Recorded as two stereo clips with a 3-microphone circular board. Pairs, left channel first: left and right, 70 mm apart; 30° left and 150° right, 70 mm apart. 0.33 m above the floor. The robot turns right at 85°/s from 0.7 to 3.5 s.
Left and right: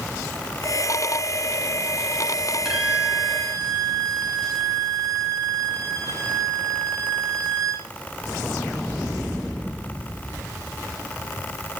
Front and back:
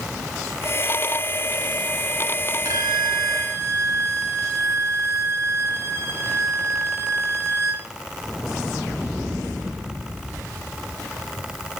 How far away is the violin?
About 1.7 m.